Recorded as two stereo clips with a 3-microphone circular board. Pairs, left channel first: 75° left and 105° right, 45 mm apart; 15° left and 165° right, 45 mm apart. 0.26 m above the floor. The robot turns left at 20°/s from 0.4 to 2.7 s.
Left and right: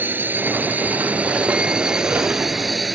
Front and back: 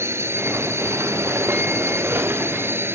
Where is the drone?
150° right; by 2.9 s 165° left.